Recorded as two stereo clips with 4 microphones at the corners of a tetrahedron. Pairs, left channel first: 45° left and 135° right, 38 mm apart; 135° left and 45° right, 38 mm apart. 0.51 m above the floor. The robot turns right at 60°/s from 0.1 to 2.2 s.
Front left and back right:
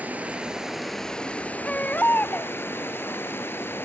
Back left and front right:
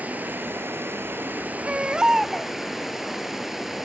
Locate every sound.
0.0 s running water: 90° right, 2.5 m; by 3.9 s 35° left, 2.5 m
1.6 s a baby crying: 5° right, 1.3 m; by 2.5 s 30° left, 1.3 m